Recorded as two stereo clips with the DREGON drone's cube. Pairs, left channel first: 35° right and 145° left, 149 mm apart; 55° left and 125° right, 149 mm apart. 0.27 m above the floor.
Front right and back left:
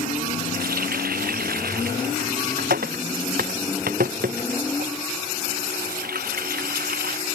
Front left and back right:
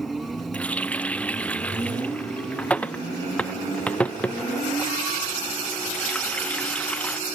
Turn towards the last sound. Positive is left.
turn(degrees=135)